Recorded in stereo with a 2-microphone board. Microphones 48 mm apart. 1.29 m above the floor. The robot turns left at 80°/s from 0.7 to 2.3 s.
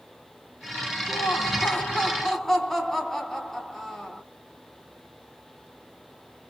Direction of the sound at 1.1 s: 100° left.